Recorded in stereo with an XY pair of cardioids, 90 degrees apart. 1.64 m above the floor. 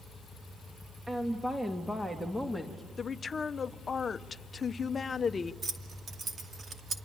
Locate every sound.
1.1 s a woman speaking: 15° right, 1.8 m; by 2.8 s 5° left, 2.5 m
3.0 s a woman speaking: 45° left, 0.9 m
5.6 s keys jangling: 45° right, 2.5 m